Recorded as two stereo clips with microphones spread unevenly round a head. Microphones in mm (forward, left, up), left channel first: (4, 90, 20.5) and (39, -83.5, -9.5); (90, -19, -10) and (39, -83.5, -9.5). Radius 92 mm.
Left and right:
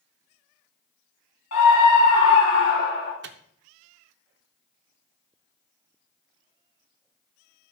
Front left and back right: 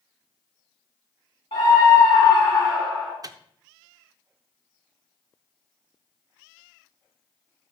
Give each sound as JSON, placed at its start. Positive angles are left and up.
{"t": 1.5, "sound": "a scream", "azimuth_deg": 110, "distance_m": 3.0}
{"t": 3.2, "sound": "a microwave", "azimuth_deg": -100, "distance_m": 0.6}